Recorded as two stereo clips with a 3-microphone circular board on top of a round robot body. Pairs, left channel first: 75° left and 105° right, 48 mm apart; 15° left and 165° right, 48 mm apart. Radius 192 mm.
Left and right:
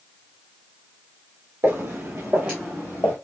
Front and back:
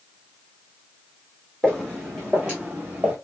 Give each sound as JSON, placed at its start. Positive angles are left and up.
{"t": 1.6, "sound": "footsteps", "azimuth_deg": -65, "distance_m": 1.1}